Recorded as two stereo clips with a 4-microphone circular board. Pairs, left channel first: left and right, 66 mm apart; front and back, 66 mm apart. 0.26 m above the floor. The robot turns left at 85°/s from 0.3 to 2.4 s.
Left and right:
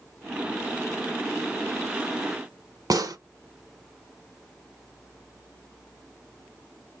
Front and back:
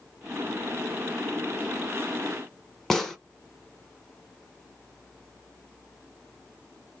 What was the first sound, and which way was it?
A gunshot, 85° right.